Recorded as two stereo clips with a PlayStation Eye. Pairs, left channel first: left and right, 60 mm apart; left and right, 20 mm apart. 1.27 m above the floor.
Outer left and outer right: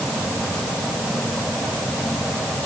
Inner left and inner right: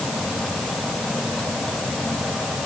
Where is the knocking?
I don't hear knocking.